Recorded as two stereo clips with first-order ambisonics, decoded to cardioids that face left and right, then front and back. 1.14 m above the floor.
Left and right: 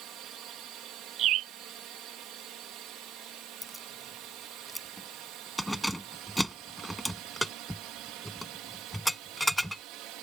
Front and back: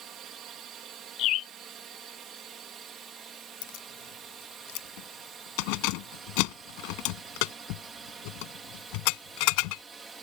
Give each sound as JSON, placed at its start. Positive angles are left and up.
{"t": 0.0, "sound": "a drone", "azimuth_deg": -130}
{"t": 1.2, "sound": "a bird", "azimuth_deg": -45}
{"t": 3.6, "sound": "keys jangling", "azimuth_deg": 0}